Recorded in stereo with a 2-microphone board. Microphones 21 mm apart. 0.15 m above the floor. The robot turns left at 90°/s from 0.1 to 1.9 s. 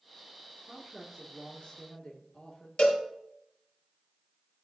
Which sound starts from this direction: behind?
A woman speaking, at 0.7 s.